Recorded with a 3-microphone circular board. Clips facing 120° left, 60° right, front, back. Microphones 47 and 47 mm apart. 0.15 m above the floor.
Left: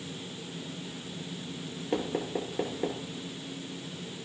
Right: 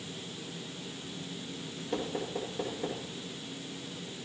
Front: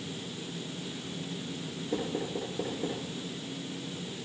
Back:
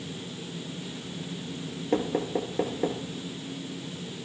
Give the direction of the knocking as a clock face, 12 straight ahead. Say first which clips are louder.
Left 3 dB, back 6 dB; 6 o'clock.